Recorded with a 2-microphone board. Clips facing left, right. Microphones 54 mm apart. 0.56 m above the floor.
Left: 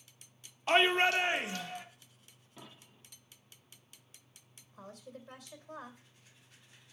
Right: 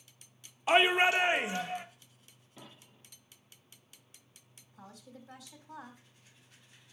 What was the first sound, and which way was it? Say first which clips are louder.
A shout: right 2 dB; 10° right (ahead or behind).